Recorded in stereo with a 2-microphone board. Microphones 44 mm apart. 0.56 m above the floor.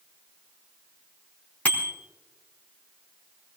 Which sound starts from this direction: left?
A bicycle bell, at 1.6 s.